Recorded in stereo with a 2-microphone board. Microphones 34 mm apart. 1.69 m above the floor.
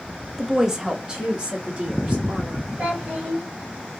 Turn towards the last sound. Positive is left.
turn(degrees=-45)  # may be behind; listen again after turning